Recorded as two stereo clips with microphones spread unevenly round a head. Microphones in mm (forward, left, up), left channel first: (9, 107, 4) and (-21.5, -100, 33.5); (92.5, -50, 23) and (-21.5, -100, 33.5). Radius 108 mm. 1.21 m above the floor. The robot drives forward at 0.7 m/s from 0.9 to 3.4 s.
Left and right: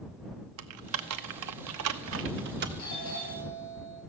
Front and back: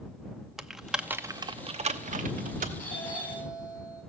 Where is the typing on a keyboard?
70° right, 0.8 m; by 2.7 s 145° right, 1.2 m.